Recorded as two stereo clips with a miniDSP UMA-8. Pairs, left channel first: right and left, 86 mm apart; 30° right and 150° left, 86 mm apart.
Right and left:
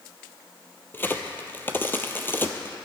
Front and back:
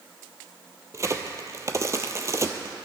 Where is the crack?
155° right, 0.9 m.